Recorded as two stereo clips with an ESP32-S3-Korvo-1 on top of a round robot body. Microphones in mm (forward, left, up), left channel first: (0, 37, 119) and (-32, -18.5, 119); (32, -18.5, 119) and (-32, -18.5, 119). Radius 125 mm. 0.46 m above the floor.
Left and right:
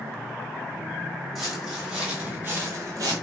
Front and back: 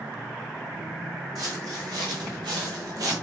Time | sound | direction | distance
1.4 | footsteps | 155° left | 1.5 m